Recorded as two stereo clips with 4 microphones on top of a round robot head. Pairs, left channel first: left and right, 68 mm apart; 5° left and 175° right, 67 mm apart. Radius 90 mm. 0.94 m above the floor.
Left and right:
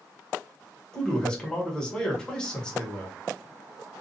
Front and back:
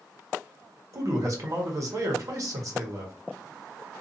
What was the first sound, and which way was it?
A man speaking, 165° left.